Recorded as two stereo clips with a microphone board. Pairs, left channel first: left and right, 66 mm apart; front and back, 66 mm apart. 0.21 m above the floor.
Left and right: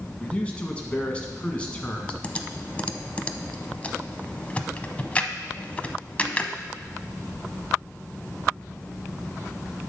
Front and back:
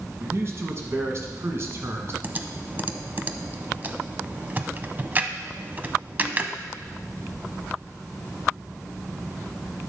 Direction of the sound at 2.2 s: 145° left.